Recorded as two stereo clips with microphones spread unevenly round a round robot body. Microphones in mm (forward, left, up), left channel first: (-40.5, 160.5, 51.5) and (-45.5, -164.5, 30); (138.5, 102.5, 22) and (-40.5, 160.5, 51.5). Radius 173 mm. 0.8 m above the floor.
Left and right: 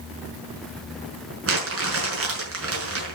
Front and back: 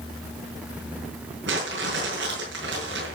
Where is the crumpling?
140° right, 5.5 m.